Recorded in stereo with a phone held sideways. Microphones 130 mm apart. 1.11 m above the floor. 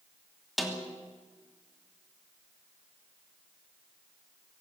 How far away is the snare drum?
About 3 m.